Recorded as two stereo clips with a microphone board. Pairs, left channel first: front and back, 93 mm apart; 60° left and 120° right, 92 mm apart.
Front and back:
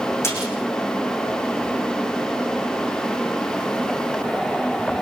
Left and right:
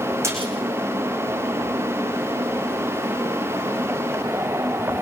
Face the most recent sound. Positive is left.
turn(degrees=-60)